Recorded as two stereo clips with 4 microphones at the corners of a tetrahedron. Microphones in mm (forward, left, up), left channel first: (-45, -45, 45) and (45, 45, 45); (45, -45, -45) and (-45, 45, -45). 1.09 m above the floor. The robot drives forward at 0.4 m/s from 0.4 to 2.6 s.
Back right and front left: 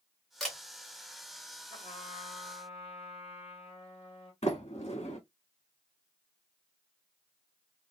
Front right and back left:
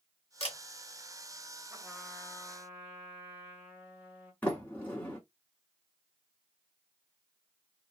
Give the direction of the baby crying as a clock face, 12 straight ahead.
No baby crying in this recording.